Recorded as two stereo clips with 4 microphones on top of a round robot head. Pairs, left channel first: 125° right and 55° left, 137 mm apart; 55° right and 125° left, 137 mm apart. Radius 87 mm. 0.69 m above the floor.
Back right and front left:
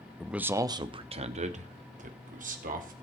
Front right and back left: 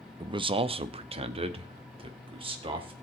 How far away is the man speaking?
About 0.7 m.